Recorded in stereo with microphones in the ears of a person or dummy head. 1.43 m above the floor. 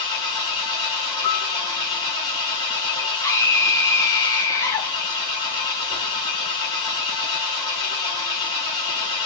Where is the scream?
15° left (ahead or behind), 1.6 m.